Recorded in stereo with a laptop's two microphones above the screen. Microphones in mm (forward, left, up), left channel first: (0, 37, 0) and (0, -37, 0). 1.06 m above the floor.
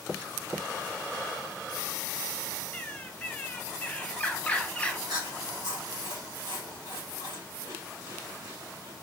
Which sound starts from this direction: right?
Chewing, at 5.1 s.